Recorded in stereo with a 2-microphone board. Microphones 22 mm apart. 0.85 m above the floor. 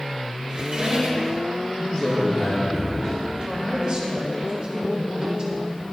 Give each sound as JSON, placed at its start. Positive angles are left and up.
{"t": 0.5, "sound": "a squeak", "side_deg": -40, "distance_m": 1.4}
{"t": 1.8, "sound": "a man speaking", "side_deg": 55, "distance_m": 1.2}
{"t": 3.4, "sound": "a woman speaking", "side_deg": -40, "distance_m": 1.6}